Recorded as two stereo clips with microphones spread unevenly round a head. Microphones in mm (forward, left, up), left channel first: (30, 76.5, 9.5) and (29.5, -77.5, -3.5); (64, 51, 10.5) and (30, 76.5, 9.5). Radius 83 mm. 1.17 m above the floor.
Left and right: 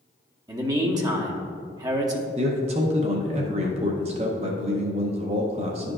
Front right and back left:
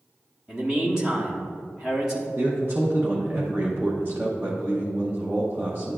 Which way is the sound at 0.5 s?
145° right.